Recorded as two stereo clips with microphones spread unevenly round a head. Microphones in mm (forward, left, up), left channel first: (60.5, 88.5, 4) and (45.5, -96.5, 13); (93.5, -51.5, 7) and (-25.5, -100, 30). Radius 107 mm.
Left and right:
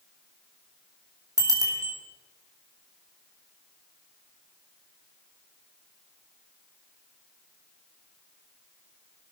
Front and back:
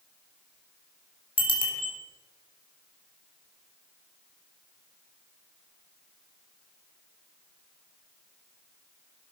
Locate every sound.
1.4 s a bicycle bell: 25° right, 4 m